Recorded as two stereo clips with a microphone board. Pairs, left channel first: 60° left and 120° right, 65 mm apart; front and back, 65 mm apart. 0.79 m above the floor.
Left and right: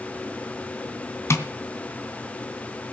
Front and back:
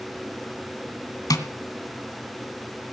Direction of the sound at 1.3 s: 15° left.